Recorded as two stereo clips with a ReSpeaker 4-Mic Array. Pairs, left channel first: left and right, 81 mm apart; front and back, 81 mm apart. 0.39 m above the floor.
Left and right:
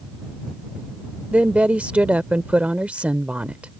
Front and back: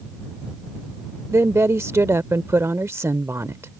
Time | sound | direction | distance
1.3 | a woman speaking | 155° right | ?